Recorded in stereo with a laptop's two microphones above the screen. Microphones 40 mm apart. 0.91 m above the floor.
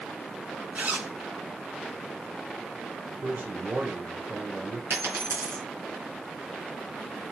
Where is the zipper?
40° right (ahead or behind), 1.5 m.